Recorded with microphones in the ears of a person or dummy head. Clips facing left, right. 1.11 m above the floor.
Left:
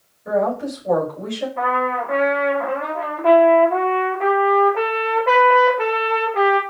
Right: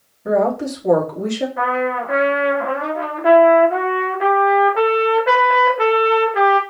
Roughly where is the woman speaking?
Right.